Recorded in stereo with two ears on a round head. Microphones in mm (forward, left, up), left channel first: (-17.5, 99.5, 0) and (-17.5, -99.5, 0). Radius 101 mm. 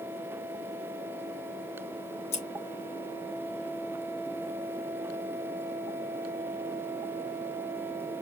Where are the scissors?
30° left (ahead or behind), 1.1 m.